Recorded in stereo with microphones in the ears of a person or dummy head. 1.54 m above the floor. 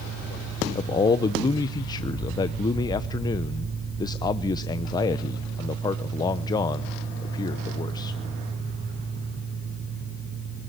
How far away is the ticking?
I don't hear ticking.